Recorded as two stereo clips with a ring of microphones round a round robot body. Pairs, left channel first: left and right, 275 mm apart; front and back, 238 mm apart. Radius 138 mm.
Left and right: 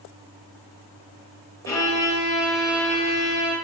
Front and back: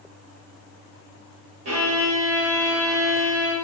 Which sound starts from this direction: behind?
A violin, at 1.6 s.